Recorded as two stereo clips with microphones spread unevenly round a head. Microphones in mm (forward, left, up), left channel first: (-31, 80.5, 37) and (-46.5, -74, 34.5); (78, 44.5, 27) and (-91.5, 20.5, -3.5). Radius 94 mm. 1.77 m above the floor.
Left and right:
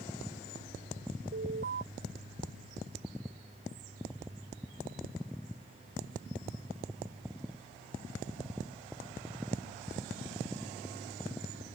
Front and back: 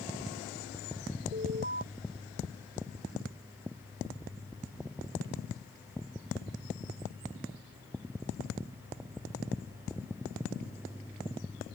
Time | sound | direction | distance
1.3 | an alarm | 120° right | ?